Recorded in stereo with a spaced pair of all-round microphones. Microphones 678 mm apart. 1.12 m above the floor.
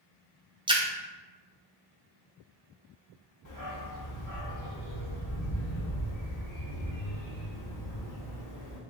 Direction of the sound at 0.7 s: 10° right (ahead or behind).